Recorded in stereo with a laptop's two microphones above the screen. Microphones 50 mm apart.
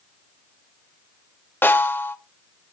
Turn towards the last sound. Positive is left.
turn(degrees=50)  # may be behind; listen again after turning